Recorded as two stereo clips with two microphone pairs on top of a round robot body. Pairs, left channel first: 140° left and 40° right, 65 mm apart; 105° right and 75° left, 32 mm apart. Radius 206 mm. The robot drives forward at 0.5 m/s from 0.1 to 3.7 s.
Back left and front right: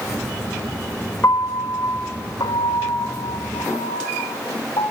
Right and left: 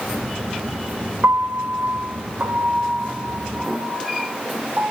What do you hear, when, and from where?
1.2 s a piano: 85° left, 1.2 m; by 4.9 s 135° left, 1.7 m